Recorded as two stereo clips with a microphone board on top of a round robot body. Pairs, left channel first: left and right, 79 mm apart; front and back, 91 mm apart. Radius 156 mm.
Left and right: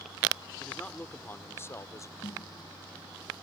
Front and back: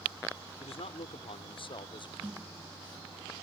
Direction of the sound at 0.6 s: 15° left.